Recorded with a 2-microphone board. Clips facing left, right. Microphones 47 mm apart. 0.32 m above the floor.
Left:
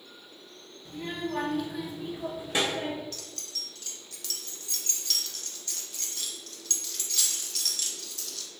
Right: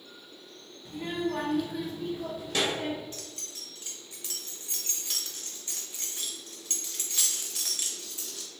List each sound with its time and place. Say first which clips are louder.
0.8 s a child speaking: right 3 dB; 15° right (ahead or behind), 0.7 m; by 3.0 s 25° left (ahead or behind), 0.8 m
3.1 s keys jangling: left 1 dB; 25° right (ahead or behind), 0.6 m